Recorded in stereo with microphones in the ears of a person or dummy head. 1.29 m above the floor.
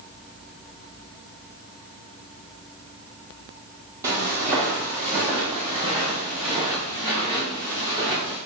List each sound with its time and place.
4.0 s footsteps: 15° right (ahead or behind), 2.5 m